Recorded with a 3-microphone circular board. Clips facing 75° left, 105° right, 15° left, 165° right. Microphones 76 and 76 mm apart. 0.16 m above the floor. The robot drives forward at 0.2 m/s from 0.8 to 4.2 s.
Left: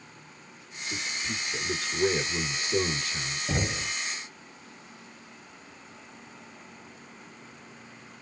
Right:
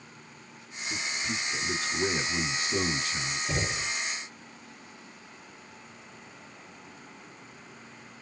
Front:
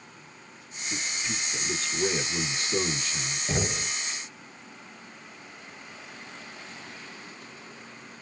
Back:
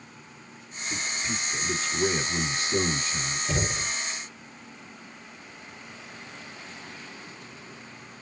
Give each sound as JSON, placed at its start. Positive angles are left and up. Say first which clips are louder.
{"t": 0.9, "sound": "a man speaking", "louder": "right 1 dB, back 2 dB", "azimuth_deg": -95, "distance_m": 1.8}
{"t": 3.5, "sound": "knocking", "louder": "left 3 dB, front 1 dB", "azimuth_deg": 50, "distance_m": 1.1}